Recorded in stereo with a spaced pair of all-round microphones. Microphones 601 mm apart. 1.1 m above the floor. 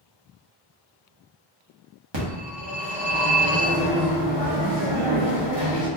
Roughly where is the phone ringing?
Right.